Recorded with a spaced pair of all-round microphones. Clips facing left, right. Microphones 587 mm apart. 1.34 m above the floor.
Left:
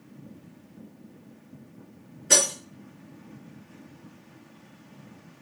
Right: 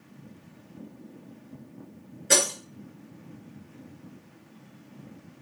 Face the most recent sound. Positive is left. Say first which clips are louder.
# right 1 dB
turn(degrees=-60)  # may be behind; listen again after turning